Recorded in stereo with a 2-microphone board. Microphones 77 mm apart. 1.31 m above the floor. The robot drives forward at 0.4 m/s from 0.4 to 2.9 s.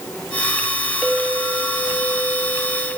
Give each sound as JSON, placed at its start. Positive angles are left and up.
{"t": 1.0, "sound": "a clink", "side_deg": -5, "distance_m": 0.9}